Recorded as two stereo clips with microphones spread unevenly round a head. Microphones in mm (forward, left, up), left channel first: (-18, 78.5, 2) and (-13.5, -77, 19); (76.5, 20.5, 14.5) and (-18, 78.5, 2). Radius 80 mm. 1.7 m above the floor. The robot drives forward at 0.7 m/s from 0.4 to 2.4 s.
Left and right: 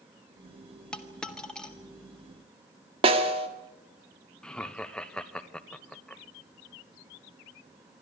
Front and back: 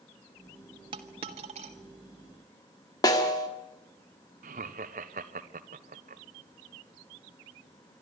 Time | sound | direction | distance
0.9 | a dropped coin | straight behind | 1.3 m
3.0 | a snare drum | 65° right | 1.5 m
4.4 | laughter | 175° left | 1.2 m